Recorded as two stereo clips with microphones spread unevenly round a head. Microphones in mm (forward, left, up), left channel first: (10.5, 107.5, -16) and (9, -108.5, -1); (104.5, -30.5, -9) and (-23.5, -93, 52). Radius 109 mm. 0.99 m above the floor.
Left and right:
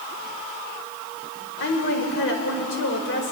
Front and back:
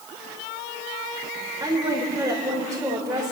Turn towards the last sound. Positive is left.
turn(degrees=130)